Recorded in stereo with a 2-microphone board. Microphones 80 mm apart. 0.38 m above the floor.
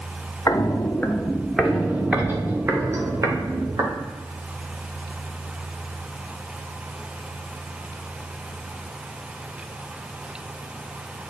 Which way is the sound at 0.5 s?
40° left (ahead or behind).